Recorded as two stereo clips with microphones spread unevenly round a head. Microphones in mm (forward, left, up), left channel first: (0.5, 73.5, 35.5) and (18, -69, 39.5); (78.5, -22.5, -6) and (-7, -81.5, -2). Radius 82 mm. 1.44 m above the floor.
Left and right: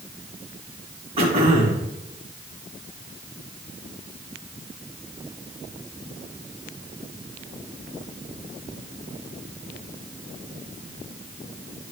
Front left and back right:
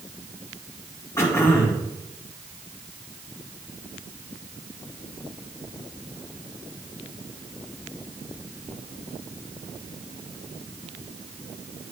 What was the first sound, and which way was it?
Throat clearing, 30° right.